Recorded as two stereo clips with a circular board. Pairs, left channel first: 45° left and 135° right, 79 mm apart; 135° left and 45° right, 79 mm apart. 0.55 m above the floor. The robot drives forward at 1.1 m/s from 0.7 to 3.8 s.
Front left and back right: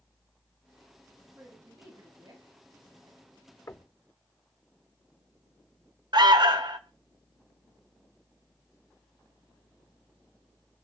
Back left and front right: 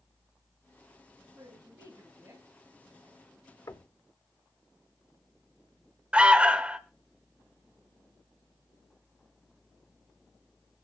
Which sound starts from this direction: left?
Knocking, at 3.7 s.